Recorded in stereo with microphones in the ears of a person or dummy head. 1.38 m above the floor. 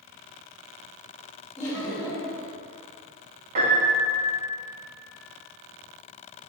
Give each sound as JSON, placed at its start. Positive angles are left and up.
{"t": 1.6, "sound": "laughter", "side_deg": 15, "distance_m": 1.9}
{"t": 3.5, "sound": "a piano", "side_deg": -45, "distance_m": 0.9}